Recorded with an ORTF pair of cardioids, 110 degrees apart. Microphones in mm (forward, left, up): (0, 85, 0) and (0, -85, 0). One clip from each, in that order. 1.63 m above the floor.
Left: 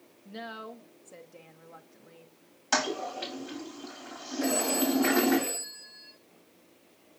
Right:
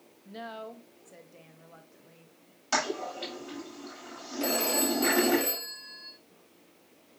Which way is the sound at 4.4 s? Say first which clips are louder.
Even; 45° right.